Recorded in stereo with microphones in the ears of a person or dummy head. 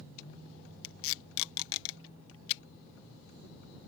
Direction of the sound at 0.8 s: 75° left (ahead or behind).